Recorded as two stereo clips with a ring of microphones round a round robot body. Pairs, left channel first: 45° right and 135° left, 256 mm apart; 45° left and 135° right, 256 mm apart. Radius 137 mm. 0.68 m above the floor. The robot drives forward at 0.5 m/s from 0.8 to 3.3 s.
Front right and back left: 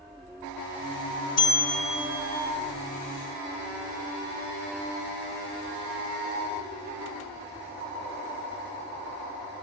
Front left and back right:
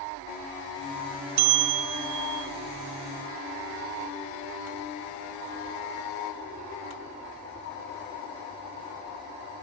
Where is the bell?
115° right, 0.5 m; by 2.5 s 150° right, 0.9 m.